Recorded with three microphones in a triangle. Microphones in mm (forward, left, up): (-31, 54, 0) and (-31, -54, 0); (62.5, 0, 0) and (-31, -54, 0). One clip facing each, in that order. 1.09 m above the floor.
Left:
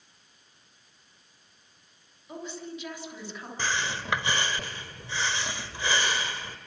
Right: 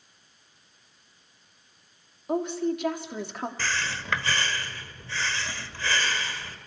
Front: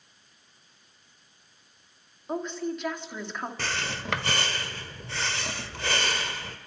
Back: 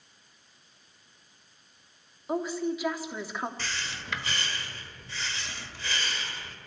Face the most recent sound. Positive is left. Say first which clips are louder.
# left 5 dB, front 5 dB
turn(degrees=20)